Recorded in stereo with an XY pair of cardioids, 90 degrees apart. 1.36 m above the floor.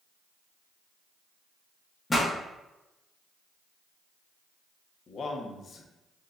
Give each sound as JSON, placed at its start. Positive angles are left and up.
{"t": 2.1, "sound": "a pop", "azimuth_deg": 25, "distance_m": 1.2}
{"t": 5.1, "sound": "a man speaking", "azimuth_deg": 60, "distance_m": 0.9}